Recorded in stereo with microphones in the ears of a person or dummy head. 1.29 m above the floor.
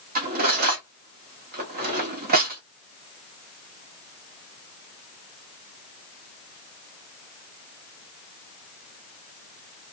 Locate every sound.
0.1 s cutlery clinking: 45° right (ahead or behind), 1.1 m